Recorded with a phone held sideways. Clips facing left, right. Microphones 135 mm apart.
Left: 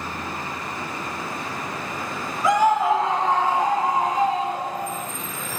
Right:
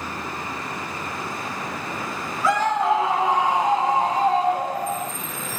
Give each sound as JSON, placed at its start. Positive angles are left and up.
{"t": 2.4, "sound": "a scream", "side_deg": 20, "distance_m": 2.5}